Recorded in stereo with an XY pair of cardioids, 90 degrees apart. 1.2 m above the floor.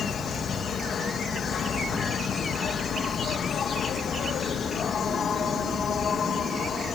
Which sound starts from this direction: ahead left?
An insect, at 0.0 s.